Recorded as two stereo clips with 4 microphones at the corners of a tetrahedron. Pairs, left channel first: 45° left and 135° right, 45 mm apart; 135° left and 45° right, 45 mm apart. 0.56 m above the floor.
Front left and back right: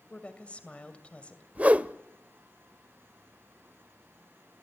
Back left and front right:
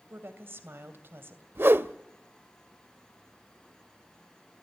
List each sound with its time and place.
0.1 s a woman speaking: 15° right, 2.5 m
1.6 s a whoosh: 80° right, 0.6 m